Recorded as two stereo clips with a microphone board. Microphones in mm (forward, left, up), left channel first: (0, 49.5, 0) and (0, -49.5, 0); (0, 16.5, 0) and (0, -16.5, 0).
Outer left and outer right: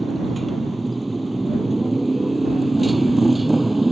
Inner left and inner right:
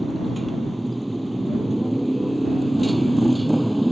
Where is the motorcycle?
Centre (ahead or behind).